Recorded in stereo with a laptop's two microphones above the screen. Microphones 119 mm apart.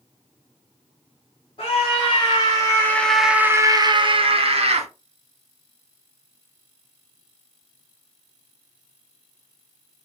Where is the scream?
50° left (ahead or behind), 1.6 m; by 4.9 s 60° right (ahead or behind), 1.5 m.